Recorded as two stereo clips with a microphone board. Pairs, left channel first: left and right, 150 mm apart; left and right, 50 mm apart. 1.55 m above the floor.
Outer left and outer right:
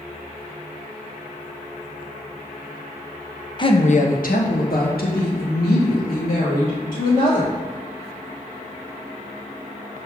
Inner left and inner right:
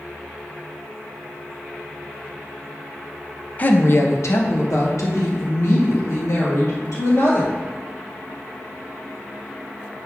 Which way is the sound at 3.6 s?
30° left (ahead or behind).